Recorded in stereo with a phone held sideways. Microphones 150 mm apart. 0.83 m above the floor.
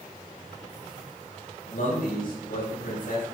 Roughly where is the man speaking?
Left.